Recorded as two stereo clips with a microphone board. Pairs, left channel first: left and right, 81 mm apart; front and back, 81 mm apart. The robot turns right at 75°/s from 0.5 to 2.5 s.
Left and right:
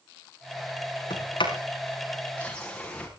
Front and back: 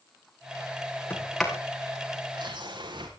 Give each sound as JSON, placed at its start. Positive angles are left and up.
{"t": 1.1, "sound": "a sliding door", "azimuth_deg": 65, "distance_m": 6.0}